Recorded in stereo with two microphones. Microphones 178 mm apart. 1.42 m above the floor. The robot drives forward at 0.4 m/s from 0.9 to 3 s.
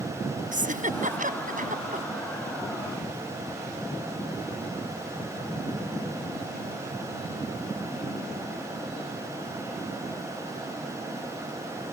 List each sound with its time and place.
0.5 s a giggle: 45° right (ahead or behind); by 2.1 s 50° right (ahead or behind)